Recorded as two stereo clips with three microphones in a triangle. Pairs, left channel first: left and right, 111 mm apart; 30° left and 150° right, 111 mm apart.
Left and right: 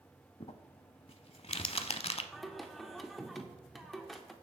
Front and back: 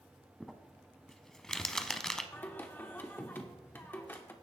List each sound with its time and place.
0.4 s crumpling: 115° left, 0.6 m
2.3 s singing: 5° left, 0.9 m